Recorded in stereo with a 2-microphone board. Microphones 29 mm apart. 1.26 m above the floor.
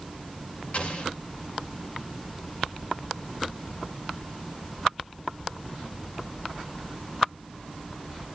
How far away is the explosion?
About 4 m.